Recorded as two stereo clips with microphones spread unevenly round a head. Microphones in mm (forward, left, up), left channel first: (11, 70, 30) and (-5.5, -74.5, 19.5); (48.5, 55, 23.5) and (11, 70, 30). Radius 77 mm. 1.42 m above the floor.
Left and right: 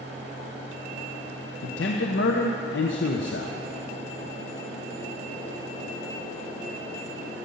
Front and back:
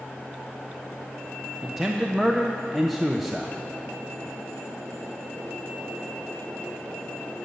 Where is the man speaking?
75° left, 0.8 m.